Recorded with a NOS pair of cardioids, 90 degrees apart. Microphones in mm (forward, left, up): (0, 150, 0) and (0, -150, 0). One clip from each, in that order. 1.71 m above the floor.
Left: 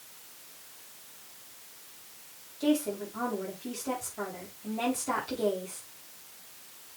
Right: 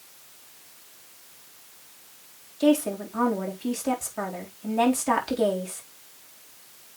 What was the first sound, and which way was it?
A woman speaking, 60° right.